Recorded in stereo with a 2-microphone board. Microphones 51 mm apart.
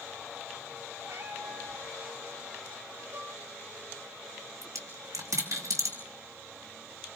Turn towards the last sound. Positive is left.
turn(degrees=-80)